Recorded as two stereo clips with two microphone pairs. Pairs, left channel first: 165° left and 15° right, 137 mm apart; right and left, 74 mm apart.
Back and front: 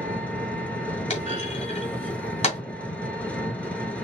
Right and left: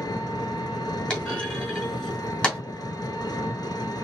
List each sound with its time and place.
0.0 s an engine running: 115° right, 1.2 m
1.1 s a clunk: 160° right, 2.5 m